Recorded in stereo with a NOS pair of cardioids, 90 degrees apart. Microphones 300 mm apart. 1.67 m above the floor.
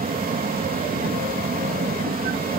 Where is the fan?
30° right.